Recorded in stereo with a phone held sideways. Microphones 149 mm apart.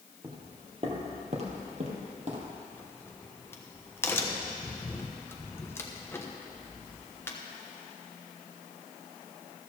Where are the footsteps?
30° right (ahead or behind), 2.5 m; by 2.5 s 45° right (ahead or behind), 3 m.